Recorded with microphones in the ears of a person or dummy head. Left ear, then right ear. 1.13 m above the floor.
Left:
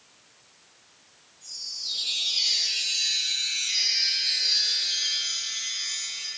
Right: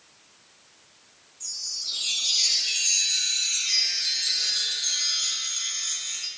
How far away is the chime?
About 3.5 m.